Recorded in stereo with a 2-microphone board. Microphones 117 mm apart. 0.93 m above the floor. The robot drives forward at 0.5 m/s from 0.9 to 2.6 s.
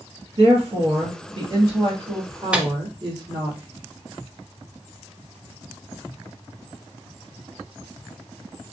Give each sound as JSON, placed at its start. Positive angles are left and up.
{"t": 0.4, "sound": "a woman speaking", "side_deg": -55, "distance_m": 1.4}
{"t": 2.5, "sound": "a microwave", "side_deg": -10, "distance_m": 0.5}